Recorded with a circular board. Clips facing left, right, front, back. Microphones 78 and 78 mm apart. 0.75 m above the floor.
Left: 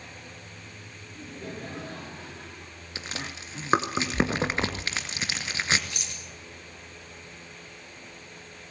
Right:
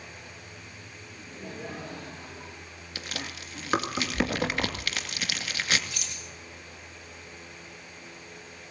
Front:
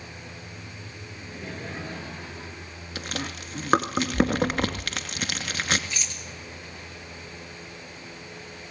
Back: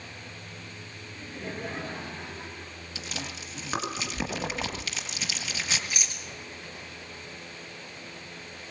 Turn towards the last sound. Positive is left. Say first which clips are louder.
# even, even
turn(degrees=100)